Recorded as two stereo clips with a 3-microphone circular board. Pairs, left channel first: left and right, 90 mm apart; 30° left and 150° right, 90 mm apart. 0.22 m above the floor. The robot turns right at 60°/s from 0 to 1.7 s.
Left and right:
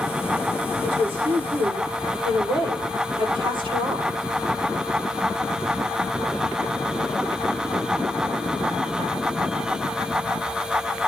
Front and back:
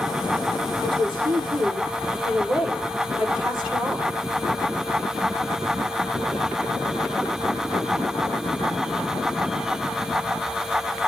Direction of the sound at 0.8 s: 125° right.